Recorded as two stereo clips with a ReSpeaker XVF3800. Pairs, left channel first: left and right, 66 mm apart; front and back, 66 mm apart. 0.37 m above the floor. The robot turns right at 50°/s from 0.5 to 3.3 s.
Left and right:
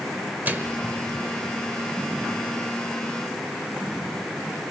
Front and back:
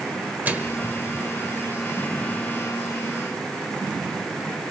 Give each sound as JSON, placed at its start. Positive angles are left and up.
{"t": 0.5, "sound": "a microwave", "azimuth_deg": -135, "distance_m": 1.2}